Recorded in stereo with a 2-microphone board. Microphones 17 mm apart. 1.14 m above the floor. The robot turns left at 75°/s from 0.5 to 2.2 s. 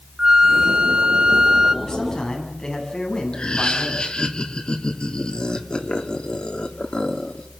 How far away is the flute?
About 1.0 m.